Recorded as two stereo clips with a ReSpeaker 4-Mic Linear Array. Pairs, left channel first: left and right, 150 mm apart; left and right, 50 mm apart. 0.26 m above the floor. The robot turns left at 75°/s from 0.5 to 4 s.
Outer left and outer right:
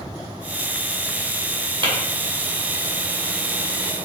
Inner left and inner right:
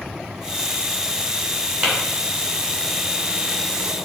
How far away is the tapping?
About 1.8 m.